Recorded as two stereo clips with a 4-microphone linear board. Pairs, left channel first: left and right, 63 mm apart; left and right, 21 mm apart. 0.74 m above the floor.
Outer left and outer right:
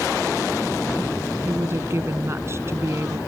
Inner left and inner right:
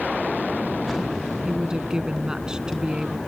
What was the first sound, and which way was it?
A woman speaking, 40° right (ahead or behind).